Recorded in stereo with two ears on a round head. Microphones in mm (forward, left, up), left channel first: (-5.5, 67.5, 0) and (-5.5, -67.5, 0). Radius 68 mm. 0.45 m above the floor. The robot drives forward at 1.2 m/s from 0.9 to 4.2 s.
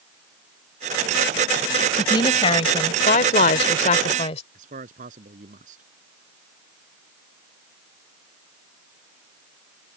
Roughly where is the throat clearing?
No throat clearing in this recording.